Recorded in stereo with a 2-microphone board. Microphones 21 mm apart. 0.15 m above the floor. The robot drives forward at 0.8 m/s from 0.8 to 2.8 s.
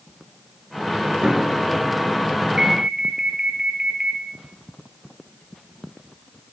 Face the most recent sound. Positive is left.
turn(degrees=-30)  # may be behind; listen again after turning